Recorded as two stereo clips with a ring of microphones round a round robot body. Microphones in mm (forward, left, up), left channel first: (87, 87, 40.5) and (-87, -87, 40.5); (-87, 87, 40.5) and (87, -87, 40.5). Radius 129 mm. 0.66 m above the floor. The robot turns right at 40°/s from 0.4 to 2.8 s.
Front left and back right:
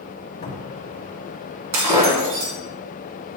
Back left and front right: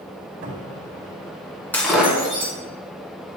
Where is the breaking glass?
140° right, 2.0 m; by 2.5 s 110° right, 2.0 m.